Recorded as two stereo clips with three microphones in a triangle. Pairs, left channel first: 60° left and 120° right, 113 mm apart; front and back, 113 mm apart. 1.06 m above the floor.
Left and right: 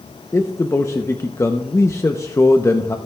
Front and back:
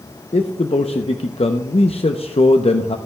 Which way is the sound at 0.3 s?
5° right.